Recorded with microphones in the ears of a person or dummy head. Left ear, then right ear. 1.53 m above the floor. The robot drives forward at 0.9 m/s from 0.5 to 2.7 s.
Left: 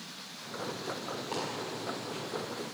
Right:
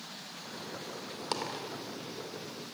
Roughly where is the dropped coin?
Right.